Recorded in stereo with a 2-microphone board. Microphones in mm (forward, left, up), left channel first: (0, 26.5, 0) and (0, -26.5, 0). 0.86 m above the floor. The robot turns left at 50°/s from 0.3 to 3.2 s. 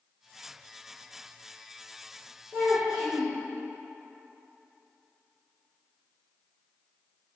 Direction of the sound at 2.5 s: 135° right.